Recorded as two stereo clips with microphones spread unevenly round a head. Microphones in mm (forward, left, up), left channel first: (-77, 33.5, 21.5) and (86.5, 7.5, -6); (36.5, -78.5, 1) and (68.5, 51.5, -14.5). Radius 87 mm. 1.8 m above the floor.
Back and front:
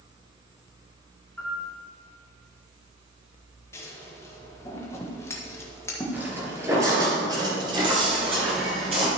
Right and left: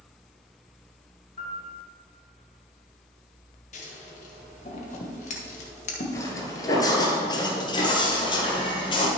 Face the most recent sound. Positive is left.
turn(degrees=-70)